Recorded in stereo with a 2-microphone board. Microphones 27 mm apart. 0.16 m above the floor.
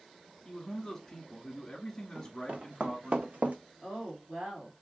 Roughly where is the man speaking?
Centre.